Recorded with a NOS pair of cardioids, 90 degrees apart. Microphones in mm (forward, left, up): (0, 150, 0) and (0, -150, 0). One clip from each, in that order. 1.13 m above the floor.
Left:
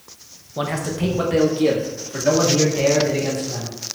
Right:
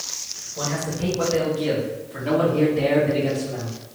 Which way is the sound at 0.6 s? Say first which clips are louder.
Left 4 dB; 45° left.